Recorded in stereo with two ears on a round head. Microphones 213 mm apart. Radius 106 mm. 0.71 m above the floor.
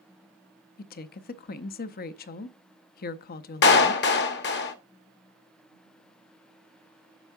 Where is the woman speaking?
40° left (ahead or behind), 0.5 m.